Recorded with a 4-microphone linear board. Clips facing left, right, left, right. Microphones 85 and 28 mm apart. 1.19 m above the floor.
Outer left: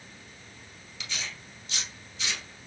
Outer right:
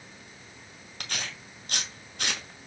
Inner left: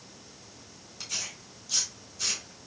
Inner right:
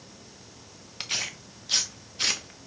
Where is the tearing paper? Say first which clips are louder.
Outer right 2 dB, inner right 5 dB; 60° right (ahead or behind), 0.9 m.